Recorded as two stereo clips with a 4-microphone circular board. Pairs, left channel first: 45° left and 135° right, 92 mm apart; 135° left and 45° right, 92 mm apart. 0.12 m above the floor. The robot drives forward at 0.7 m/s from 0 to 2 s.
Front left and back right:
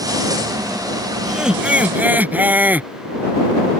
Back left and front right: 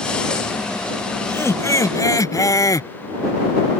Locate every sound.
1.2 s laughter: 145° left; by 2.9 s 165° left